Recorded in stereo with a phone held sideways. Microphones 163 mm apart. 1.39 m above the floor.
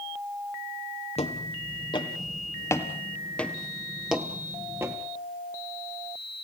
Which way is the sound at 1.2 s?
40° left (ahead or behind).